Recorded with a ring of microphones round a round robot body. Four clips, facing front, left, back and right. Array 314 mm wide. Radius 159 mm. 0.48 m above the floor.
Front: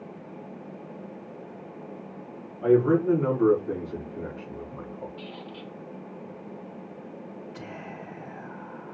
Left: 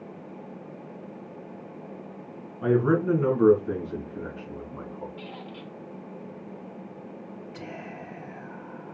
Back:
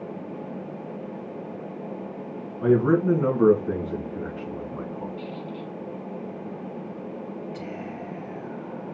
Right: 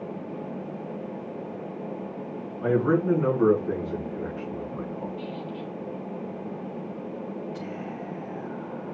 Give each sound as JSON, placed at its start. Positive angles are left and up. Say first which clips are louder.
{"t": 2.6, "sound": "a man speaking", "louder": "even, back 1 dB", "azimuth_deg": 160, "distance_m": 5.0}
{"t": 5.2, "sound": "a squeak", "louder": "right 6 dB, back 6 dB", "azimuth_deg": 80, "distance_m": 2.5}
{"t": 7.5, "sound": "whispering", "louder": "right 4 dB, back 5 dB", "azimuth_deg": 135, "distance_m": 5.5}